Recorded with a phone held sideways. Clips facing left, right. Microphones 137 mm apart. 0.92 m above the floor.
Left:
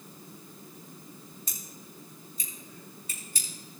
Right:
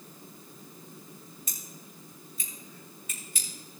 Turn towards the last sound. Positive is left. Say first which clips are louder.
# left 1 dB
turn(degrees=40)  # may be behind; listen again after turning